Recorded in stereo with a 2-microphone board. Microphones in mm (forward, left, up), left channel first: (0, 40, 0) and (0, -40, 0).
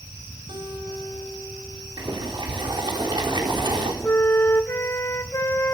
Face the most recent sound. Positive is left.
turn(degrees=35)  # may be behind; listen again after turning